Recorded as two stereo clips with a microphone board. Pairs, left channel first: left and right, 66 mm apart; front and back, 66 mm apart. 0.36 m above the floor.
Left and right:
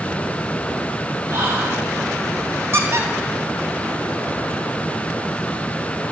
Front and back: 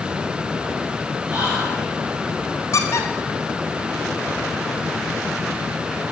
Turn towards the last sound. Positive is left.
turn(degrees=-40)